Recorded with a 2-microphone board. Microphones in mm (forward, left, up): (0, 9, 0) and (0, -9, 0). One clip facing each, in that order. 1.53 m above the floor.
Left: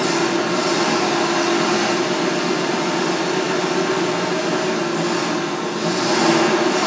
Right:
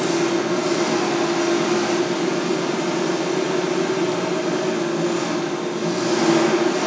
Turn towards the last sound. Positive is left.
turn(degrees=85)